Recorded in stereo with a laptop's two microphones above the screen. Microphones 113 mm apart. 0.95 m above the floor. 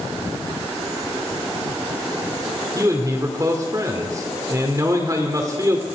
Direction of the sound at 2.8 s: 30° right (ahead or behind).